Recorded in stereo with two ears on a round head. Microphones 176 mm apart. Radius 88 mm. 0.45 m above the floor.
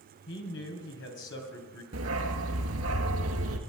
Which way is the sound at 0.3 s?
70° left (ahead or behind).